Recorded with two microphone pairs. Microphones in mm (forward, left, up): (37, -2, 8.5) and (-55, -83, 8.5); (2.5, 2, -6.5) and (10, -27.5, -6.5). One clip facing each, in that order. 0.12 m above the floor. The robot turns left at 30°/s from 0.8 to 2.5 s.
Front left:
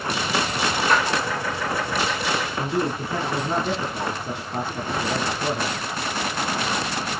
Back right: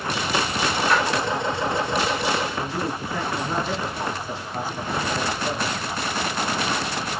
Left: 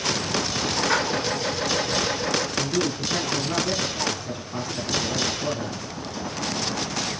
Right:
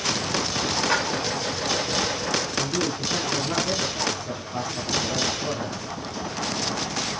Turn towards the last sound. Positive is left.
turn(degrees=20)